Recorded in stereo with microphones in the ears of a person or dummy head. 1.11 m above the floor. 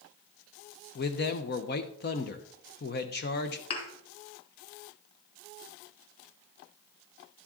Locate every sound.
0.9 s a man speaking: 50° left (ahead or behind), 0.8 m
3.7 s a thud: 35° left (ahead or behind), 2.5 m